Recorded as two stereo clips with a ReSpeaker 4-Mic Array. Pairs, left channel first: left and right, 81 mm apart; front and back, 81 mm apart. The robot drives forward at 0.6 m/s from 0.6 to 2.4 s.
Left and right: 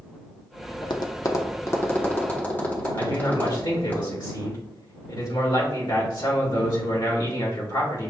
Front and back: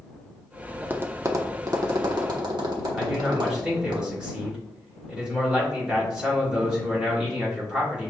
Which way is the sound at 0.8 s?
110° left.